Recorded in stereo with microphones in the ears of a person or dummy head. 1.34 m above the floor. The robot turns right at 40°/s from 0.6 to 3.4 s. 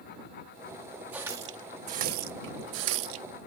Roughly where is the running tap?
Centre.